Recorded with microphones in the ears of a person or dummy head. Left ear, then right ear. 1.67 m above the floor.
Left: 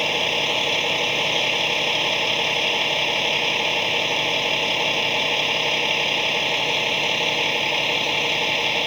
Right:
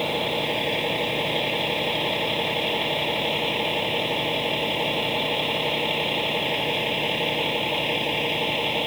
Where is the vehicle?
55° left (ahead or behind); by 8.9 s 40° left (ahead or behind).